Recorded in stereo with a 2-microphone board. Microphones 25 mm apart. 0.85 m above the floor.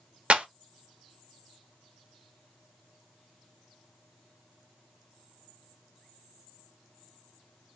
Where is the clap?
50° right (ahead or behind), 0.7 m.